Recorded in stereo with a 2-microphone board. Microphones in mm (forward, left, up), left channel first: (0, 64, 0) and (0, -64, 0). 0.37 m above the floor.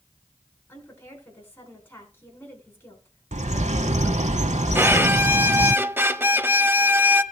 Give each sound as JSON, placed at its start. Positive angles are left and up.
{"t": 0.7, "sound": "a woman speaking", "side_deg": 15, "distance_m": 4.0}
{"t": 3.3, "sound": "a bird", "side_deg": -70, "distance_m": 0.7}
{"t": 4.8, "sound": "a violin", "side_deg": -20, "distance_m": 0.6}